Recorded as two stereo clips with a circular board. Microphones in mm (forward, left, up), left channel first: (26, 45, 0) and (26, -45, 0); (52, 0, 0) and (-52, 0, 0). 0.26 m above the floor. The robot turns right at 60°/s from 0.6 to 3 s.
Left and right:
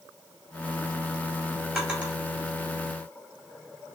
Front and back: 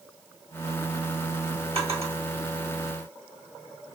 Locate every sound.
1.8 s a drawer: 175° right, 1.8 m; by 2.1 s 155° right, 1.8 m